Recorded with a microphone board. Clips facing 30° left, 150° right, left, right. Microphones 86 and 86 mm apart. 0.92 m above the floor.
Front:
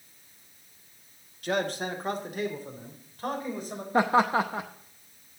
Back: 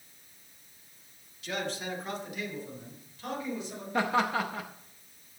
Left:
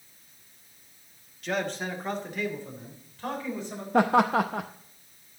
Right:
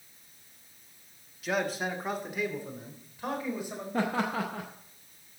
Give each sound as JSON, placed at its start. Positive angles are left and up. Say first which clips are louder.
{"t": 1.4, "sound": "a man speaking", "louder": "front 6 dB, even", "azimuth_deg": -5, "distance_m": 1.4}
{"t": 3.9, "sound": "laughter", "louder": "front 5 dB, left 9 dB", "azimuth_deg": 90, "distance_m": 0.6}